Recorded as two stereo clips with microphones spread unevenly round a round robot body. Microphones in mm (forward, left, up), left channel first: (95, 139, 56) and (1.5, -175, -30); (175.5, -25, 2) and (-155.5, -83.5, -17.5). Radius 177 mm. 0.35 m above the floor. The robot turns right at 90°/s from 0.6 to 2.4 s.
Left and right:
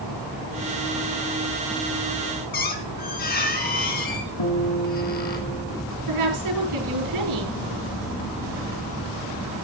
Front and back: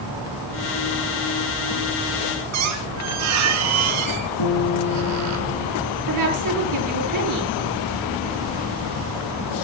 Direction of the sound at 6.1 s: 140° right.